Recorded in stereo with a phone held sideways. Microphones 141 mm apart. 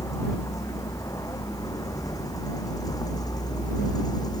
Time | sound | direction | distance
0.0 | a vehicle | 20° left (ahead or behind) | ?